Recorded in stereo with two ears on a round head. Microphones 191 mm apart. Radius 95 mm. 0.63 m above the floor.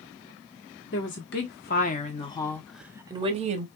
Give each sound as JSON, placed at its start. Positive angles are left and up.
{"t": 0.9, "sound": "a woman speaking", "side_deg": 60, "distance_m": 1.2}